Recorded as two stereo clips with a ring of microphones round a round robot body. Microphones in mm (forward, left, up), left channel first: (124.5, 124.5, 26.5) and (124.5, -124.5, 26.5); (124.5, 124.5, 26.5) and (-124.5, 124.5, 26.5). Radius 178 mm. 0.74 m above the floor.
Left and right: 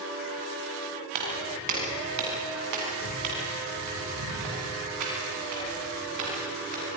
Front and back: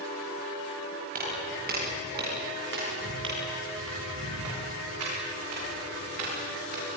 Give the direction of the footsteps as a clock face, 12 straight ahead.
4 o'clock.